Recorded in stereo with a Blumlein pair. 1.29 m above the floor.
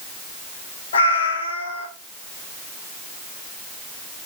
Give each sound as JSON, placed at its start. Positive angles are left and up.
{"t": 0.9, "sound": "a cat meowing", "azimuth_deg": 65, "distance_m": 2.5}